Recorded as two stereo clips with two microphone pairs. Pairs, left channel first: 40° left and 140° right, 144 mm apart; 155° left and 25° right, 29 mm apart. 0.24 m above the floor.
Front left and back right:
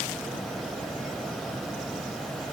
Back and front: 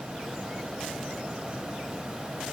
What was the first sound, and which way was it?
Only background noise.